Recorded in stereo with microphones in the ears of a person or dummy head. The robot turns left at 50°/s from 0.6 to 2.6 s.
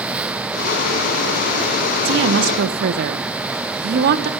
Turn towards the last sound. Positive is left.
turn(degrees=-65)  # may be behind; listen again after turning